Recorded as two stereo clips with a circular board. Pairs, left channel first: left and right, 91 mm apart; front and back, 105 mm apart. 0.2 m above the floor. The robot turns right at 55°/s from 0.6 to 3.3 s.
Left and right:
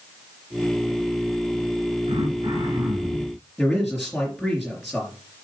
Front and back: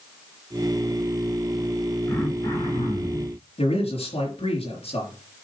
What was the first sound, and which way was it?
Throat clearing, 80° right.